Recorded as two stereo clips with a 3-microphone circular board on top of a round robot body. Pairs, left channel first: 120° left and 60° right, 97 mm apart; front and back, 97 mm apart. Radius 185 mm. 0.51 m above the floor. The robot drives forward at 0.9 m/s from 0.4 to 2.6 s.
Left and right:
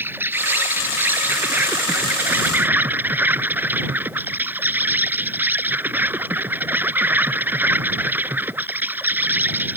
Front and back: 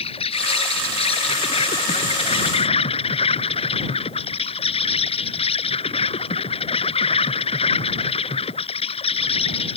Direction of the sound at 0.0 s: 10° left.